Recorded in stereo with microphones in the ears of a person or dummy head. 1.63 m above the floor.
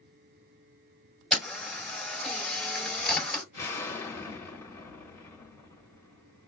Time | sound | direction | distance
1.3 | a camera shutter | centre (ahead or behind) | 3.5 m
3.5 | an explosion | 15° left (ahead or behind) | 1.6 m